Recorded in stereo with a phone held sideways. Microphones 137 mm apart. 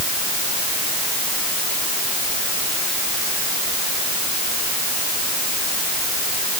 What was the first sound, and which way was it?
Only background noise.